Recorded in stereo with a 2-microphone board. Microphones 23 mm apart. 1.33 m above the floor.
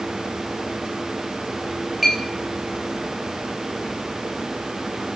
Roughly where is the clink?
Centre.